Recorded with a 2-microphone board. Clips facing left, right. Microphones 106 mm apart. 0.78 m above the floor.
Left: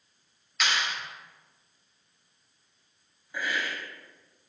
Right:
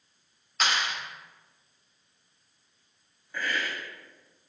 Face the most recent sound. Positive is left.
turn(degrees=10)  # may be behind; listen again after turning